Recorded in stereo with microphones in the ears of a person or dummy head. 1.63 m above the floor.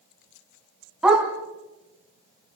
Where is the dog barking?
5° right (ahead or behind), 4 m.